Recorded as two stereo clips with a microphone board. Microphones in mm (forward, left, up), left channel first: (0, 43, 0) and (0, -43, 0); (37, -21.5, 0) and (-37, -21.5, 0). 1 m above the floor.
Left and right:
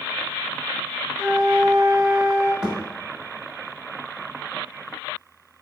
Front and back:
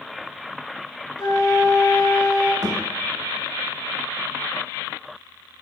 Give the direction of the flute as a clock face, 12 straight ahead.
12 o'clock.